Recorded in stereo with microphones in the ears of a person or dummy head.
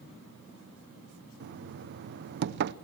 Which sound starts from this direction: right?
Knocking, at 1.4 s.